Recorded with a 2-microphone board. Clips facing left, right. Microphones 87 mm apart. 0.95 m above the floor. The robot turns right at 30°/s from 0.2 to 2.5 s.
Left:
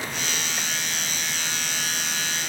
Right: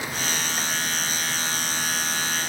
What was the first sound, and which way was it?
Only background noise.